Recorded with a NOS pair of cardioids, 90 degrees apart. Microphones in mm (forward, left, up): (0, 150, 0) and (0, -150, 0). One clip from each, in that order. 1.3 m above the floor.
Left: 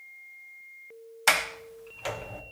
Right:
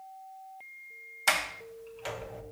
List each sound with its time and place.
1.3 s a sliding door: 25° left, 1.2 m